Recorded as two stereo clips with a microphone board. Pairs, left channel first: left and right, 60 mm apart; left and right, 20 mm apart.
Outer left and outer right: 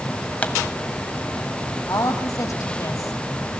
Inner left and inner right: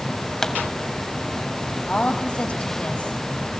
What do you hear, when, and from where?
0.4 s a pop: 25° left (ahead or behind), 1.3 m
1.9 s a woman speaking: 65° left (ahead or behind), 3 m